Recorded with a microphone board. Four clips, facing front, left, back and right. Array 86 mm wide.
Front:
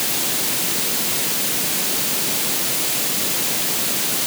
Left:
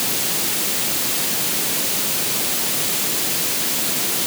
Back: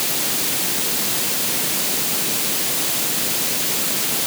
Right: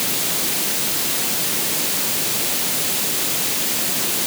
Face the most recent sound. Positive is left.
No sound to turn to.